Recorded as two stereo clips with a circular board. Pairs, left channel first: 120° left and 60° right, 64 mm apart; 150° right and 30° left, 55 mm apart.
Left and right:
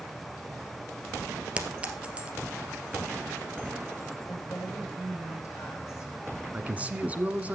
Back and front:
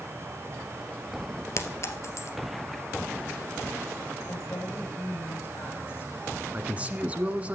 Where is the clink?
130° right, 1.7 m.